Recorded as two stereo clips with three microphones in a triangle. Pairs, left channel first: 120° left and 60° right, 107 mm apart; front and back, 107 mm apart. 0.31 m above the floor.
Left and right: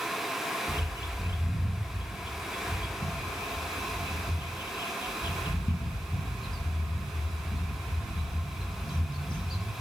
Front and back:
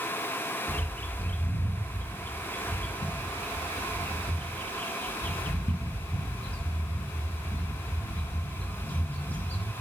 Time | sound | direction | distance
0.7 | a bird | 75° left | 2.5 m